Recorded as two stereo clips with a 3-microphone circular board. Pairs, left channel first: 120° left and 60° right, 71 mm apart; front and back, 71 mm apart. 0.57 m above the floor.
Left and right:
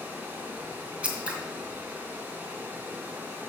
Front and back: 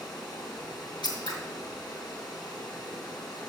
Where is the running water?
5° left, 2 m.